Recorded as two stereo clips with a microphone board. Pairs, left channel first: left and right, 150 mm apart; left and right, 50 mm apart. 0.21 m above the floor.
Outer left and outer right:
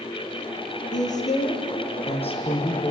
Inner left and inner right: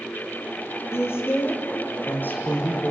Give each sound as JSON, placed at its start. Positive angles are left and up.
{"t": 0.9, "sound": "a woman speaking", "side_deg": 60, "distance_m": 4.5}